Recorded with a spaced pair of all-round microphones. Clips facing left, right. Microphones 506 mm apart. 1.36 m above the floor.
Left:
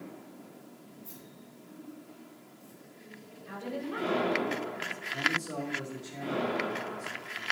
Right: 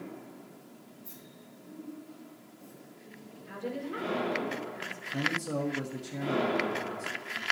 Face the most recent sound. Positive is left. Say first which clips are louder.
# right 4 dB
turn(degrees=-75)  # may be behind; listen again after turning